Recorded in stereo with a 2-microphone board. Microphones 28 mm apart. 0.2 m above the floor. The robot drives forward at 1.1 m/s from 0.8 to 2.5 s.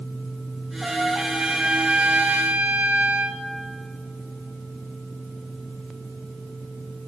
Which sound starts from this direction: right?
A trumpet, at 0.8 s.